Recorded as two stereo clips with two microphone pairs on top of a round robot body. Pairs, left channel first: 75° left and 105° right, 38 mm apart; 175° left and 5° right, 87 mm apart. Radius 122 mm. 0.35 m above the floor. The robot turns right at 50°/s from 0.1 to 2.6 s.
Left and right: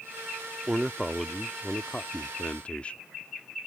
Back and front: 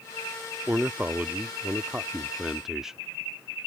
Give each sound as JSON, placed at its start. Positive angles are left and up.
{"t": 0.7, "sound": "a man speaking", "azimuth_deg": -40}